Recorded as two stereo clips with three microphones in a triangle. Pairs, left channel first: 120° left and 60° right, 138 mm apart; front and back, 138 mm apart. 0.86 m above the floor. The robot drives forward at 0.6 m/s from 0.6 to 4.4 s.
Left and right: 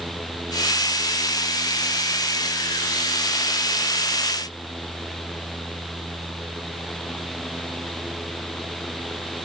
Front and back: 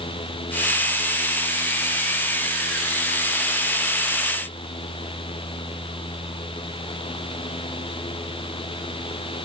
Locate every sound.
Only background noise.